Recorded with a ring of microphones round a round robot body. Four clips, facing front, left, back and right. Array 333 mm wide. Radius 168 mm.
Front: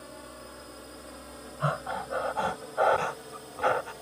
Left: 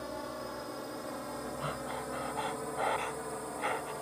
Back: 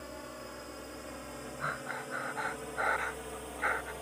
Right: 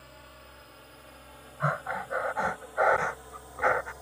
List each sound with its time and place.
0.0 s a drone: 95° left; by 4.0 s 105° left
1.6 s breathing: 40° right